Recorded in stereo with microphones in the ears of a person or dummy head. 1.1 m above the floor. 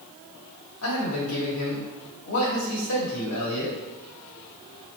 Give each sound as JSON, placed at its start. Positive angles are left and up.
{"t": 0.8, "sound": "a man speaking", "side_deg": 75, "distance_m": 1.2}